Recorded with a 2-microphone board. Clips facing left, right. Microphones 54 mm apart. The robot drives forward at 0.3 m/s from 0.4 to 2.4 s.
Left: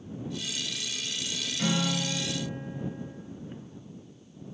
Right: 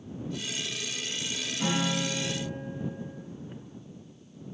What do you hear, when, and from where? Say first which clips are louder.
1.6 s a guitar: even; 65° left (ahead or behind), 0.9 m; by 3.2 s 70° left (ahead or behind), 0.8 m